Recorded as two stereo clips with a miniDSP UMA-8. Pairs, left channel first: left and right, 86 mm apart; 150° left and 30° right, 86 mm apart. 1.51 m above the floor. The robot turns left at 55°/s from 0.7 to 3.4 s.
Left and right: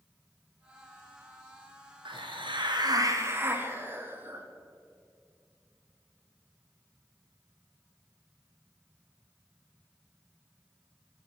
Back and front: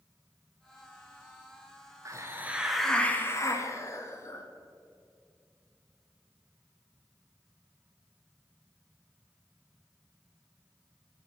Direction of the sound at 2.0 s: 80° right.